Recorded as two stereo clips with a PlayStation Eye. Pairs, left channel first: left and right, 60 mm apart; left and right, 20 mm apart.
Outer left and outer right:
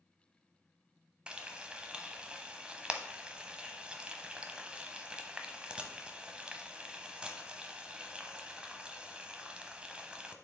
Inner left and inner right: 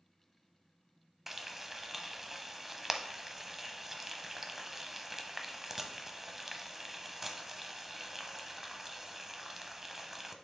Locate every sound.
1.3 s frying: 15° right (ahead or behind), 0.8 m